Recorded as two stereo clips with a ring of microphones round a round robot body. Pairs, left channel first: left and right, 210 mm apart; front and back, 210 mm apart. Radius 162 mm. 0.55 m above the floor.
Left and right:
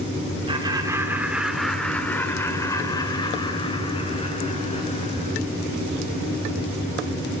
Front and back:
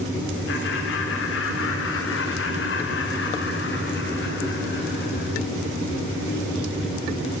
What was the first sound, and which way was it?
Laughter, 25° right.